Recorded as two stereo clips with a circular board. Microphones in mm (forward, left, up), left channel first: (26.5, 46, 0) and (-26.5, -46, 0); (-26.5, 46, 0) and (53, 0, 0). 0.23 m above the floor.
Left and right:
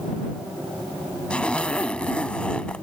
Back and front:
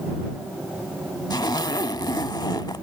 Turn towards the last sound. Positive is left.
turn(degrees=135)